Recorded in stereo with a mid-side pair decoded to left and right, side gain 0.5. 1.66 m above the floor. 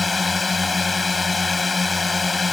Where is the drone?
25° left.